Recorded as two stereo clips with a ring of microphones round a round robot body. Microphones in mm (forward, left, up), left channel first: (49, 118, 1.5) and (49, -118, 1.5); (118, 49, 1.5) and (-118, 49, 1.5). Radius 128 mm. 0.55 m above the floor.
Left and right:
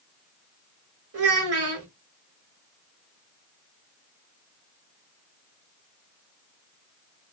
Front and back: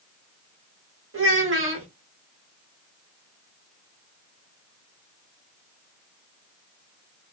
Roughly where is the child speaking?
Behind right.